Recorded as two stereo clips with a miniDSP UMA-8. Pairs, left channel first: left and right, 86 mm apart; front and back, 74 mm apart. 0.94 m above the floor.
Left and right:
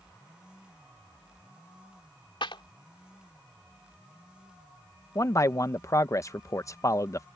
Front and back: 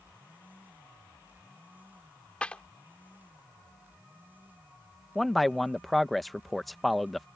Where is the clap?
75° left.